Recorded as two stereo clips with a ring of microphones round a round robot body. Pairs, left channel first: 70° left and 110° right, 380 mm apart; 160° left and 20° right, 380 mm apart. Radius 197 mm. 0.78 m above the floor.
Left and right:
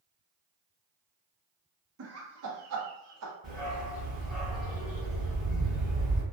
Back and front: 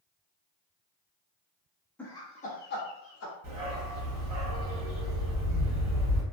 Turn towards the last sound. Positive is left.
turn(degrees=-10)